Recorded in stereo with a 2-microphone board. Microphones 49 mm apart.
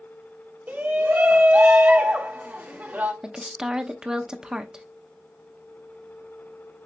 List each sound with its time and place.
0.7 s a shout: 35° right (ahead or behind), 1.4 m
3.2 s a woman speaking: 15° right (ahead or behind), 0.6 m